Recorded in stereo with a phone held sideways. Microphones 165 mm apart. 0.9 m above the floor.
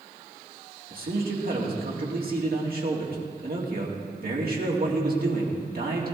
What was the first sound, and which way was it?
A man speaking, 65° right (ahead or behind).